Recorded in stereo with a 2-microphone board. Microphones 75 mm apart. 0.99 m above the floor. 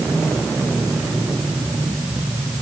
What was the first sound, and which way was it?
Only background noise.